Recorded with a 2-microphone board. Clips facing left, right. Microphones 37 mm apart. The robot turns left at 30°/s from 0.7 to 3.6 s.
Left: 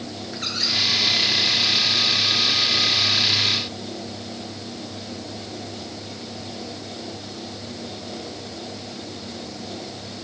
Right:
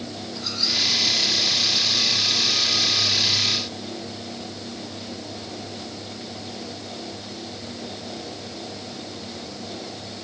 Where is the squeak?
60° left (ahead or behind), 7 m; by 0.8 s 65° left (ahead or behind), 7 m.